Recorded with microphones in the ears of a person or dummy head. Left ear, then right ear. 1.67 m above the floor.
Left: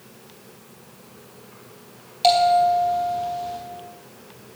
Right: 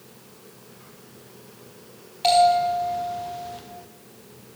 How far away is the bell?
About 3.5 m.